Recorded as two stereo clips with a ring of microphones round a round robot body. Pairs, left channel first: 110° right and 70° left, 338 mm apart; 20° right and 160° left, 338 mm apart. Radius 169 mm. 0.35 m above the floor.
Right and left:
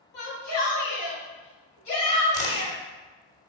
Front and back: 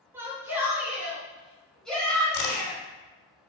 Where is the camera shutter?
35° right, 2.5 m.